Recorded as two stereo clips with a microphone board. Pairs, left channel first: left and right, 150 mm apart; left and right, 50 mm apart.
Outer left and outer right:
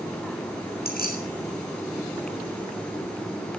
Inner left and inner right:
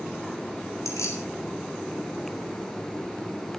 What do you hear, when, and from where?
0.8 s keys jangling: 90° left, 7 m